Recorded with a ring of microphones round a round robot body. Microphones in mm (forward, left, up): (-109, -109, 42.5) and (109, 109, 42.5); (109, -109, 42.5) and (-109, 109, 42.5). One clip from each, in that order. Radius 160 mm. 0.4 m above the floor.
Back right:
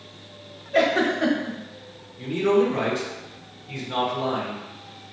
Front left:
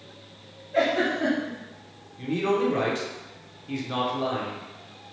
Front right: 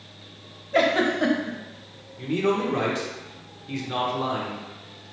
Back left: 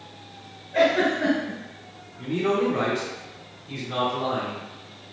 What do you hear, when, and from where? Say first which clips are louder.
0.7 s a giggle: back right 3 dB, back left 1 dB; 80° right, 1.0 m
2.2 s a man speaking: back right 4 dB, even; straight ahead, 0.9 m